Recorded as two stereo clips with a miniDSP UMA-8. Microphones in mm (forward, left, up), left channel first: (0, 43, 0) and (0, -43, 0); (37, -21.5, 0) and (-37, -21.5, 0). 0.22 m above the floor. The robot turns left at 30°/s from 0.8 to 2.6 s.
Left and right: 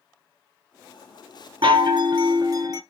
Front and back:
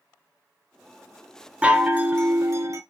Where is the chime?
105° right, 0.6 m; by 2.8 s 135° right, 0.6 m.